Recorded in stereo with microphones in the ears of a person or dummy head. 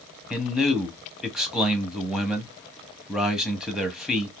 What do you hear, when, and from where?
0.3 s a man speaking: 5° right (ahead or behind), 1.0 m